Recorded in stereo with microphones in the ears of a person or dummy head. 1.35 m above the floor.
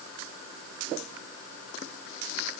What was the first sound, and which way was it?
Only background noise.